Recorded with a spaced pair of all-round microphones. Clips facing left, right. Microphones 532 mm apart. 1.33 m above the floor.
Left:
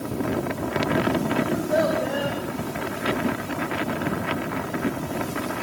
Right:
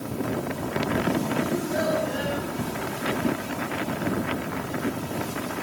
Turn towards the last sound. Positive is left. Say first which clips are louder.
# left 3 dB
turn(degrees=75)  # may be behind; listen again after turning